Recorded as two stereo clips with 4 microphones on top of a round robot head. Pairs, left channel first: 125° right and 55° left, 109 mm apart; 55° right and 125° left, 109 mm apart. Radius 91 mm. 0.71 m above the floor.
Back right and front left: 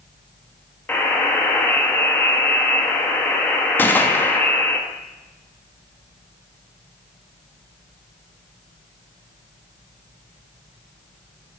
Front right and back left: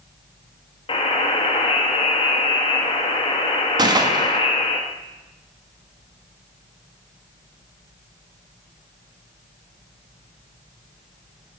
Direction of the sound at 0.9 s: 55° right.